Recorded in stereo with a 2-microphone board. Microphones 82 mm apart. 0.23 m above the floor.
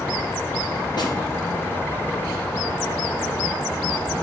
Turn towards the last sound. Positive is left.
turn(degrees=60)  # may be behind; listen again after turning